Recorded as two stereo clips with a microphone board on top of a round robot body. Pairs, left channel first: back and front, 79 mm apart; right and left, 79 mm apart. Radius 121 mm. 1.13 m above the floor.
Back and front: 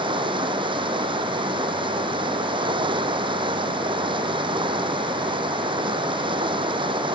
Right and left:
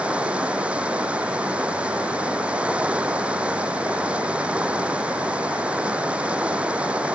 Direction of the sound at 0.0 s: 15° left.